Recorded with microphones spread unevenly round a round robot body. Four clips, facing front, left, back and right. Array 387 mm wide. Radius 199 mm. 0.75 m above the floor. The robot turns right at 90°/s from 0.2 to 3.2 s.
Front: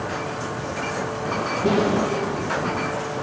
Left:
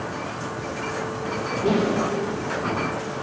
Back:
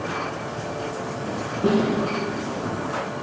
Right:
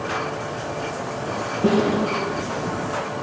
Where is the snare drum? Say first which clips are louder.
Right 3 dB, even; 100° right, 2.5 m; by 1.9 s 80° right, 2.5 m.